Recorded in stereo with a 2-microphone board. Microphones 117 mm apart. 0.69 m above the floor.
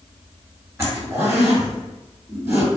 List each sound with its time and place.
0.8 s a zipper: 20° right (ahead or behind), 1.7 m